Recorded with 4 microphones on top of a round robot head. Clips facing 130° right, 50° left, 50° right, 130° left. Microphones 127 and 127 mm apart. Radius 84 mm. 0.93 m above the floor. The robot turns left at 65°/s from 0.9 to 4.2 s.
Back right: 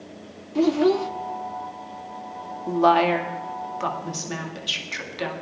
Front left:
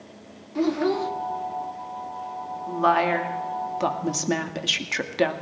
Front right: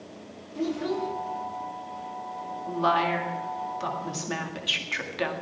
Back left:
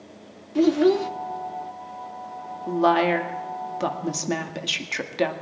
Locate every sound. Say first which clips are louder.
0.6 s a child speaking: back right 4 dB, back left 10 dB; 155° left, 1.0 m; by 1.1 s 145° left, 1.0 m
2.7 s a woman speaking: back right 3 dB, back left 6 dB; straight behind, 2 m; by 5.3 s 80° left, 2 m